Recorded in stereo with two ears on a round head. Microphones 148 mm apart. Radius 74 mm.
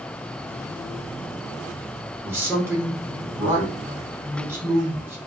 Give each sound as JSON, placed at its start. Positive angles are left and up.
{"t": 2.2, "sound": "a man speaking", "side_deg": -15, "distance_m": 1.0}